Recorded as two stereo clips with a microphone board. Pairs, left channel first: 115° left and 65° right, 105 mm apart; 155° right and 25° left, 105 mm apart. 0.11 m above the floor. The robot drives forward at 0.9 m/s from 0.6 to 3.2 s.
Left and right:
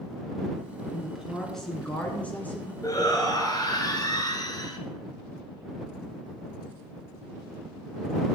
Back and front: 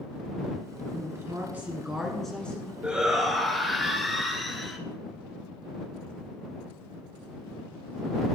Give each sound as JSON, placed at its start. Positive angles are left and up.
{"t": 0.9, "sound": "a woman speaking", "azimuth_deg": 20, "distance_m": 1.9}
{"t": 2.8, "sound": "a shout", "azimuth_deg": 95, "distance_m": 1.5}